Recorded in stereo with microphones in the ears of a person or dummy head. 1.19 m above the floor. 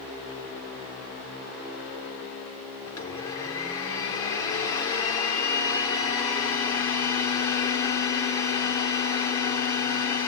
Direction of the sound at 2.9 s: 20° left (ahead or behind).